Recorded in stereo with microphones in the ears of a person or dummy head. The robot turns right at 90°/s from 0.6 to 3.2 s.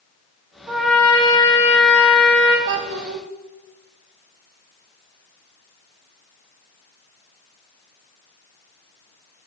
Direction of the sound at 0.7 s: 15° right.